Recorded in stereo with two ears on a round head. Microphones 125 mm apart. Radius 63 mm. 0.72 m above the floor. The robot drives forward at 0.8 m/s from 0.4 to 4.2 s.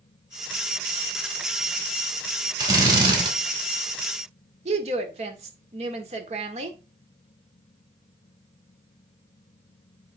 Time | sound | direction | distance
2.6 | a drill | 30° right (ahead or behind) | 3 m
4.7 | a woman speaking | 55° right (ahead or behind) | 1.8 m